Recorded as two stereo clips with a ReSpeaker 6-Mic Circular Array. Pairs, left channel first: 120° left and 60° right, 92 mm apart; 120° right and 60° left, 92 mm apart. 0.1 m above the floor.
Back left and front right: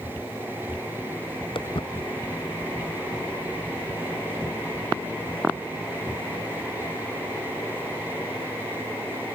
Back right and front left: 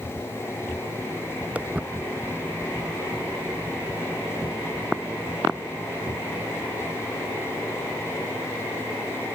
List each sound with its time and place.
1.6 s footsteps: 135° left; by 8.5 s 140° left